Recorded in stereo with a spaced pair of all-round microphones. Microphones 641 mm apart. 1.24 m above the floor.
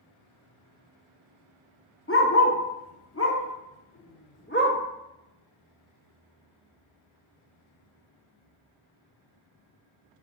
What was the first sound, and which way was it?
A dog barking, 20° left (ahead or behind).